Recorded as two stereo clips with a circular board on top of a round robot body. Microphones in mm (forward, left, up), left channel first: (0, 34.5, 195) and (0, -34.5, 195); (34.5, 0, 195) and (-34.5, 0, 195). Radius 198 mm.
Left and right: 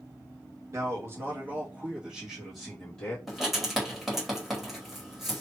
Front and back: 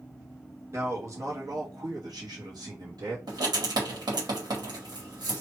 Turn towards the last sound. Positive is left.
turn(degrees=180)